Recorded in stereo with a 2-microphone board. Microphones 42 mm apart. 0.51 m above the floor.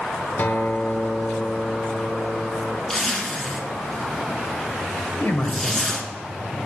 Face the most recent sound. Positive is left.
turn(degrees=60)  # may be behind; listen again after turning